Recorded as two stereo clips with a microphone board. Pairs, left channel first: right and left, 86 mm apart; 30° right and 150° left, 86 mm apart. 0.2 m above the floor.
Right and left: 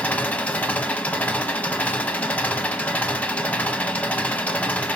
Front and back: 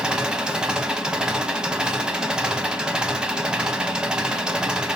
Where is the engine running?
140° right, 0.8 m.